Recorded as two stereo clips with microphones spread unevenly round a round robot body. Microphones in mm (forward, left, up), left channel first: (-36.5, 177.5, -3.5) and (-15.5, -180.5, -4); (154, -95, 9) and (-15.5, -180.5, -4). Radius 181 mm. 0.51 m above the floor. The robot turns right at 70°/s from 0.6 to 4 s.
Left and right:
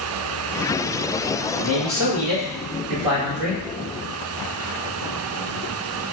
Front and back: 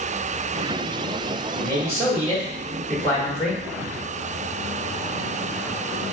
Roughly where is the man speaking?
Behind.